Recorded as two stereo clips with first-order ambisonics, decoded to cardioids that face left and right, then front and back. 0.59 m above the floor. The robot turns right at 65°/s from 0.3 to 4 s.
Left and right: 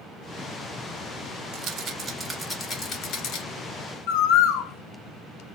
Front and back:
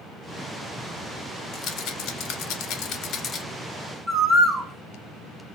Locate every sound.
1.5 s a rattle: 55° right, 0.7 m; by 3.4 s 70° left, 0.7 m
4.1 s a bird: 105° left, 0.5 m